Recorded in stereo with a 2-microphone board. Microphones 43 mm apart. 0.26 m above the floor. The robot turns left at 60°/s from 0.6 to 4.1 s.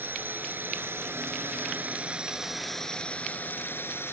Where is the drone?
60° right; by 4.1 s 90° left.